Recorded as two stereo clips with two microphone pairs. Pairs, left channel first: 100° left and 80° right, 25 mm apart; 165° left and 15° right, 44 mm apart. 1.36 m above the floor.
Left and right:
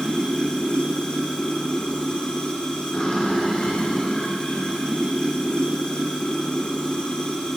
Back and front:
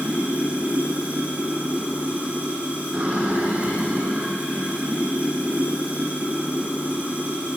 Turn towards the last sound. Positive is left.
turn(degrees=45)